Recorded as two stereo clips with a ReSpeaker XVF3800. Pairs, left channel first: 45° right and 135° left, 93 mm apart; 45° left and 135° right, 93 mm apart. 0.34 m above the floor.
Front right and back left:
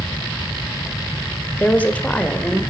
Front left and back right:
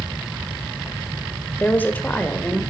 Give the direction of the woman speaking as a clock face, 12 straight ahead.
12 o'clock.